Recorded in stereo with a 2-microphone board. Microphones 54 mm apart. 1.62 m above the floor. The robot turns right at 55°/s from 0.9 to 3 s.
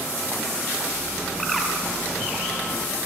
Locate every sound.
1.4 s a bird: 5° left (ahead or behind), 3 m; by 1.7 s 10° right (ahead or behind), 3 m